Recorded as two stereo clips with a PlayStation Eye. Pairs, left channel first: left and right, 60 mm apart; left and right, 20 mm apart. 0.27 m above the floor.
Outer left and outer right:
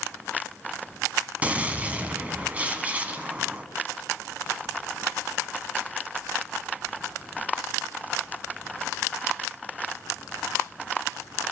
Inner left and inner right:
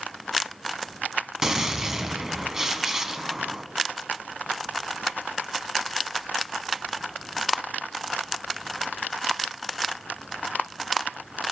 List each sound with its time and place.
1.4 s a gunshot: 25° right (ahead or behind), 1.0 m